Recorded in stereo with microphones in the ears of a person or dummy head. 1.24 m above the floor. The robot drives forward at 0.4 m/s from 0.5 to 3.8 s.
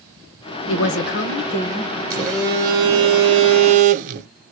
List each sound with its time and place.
0.7 s a woman speaking: 65° left (ahead or behind), 0.6 m; by 1.9 s 35° left (ahead or behind), 0.9 m
2.1 s a phone buzzing: 20° right (ahead or behind), 1.2 m; by 4.3 s 40° right (ahead or behind), 0.6 m